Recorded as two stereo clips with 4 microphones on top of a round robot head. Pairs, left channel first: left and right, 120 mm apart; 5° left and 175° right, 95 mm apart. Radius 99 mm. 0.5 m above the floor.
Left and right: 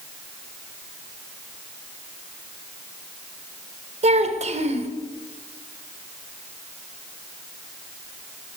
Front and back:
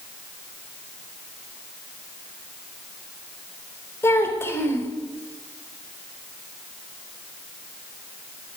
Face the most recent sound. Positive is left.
turn(degrees=-65)